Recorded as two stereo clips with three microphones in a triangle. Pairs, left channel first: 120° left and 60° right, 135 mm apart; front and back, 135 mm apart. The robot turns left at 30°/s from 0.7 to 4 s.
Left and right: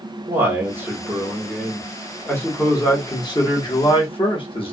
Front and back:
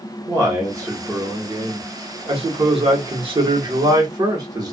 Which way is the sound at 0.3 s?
125° right.